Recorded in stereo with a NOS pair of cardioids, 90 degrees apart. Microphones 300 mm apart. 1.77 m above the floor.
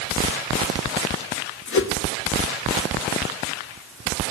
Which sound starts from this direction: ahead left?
A whoosh, at 1.7 s.